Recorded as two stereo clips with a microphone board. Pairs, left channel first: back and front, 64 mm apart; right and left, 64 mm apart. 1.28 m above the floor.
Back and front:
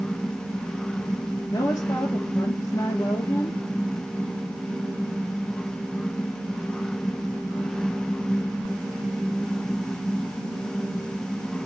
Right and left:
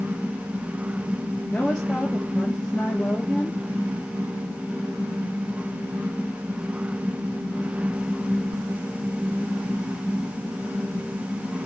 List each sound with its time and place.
1.5 s a woman speaking: 165° right, 2.5 m